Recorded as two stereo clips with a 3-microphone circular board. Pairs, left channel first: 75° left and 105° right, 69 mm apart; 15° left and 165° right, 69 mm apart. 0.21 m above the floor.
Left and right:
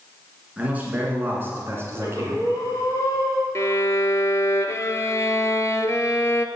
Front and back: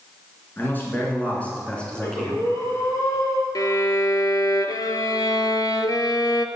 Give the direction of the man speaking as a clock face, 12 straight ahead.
1 o'clock.